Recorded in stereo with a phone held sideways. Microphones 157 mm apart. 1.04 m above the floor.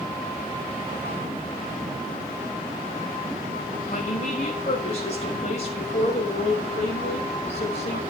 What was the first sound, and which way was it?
A woman speaking, 45° left (ahead or behind).